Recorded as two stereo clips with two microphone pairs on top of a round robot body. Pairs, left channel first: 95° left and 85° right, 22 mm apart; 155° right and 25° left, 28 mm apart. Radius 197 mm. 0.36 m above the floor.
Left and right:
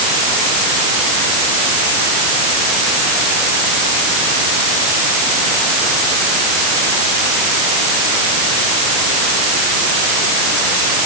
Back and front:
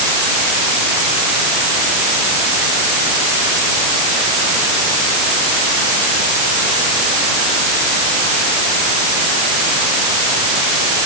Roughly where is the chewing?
No chewing in this recording.